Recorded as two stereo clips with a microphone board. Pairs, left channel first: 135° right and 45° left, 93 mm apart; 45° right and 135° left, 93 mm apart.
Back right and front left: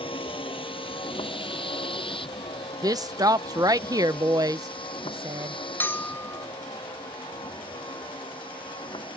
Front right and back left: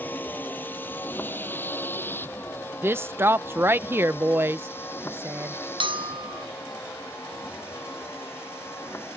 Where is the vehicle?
115° right; by 9.2 s 110° right.